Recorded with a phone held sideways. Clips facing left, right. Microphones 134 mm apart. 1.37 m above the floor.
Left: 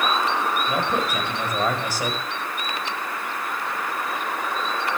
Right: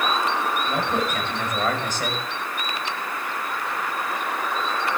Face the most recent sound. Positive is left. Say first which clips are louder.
# even
turn(degrees=10)  # may be behind; listen again after turning